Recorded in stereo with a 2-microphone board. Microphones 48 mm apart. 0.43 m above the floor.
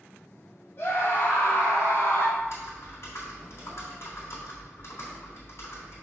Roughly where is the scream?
Left.